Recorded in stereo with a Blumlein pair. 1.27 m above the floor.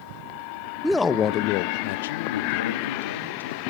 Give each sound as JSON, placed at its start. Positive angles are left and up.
{"t": 0.8, "sound": "a man speaking", "azimuth_deg": -5, "distance_m": 0.8}